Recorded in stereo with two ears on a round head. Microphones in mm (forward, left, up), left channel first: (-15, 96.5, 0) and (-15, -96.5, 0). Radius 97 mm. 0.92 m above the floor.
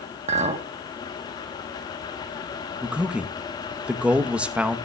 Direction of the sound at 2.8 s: 5° right (ahead or behind).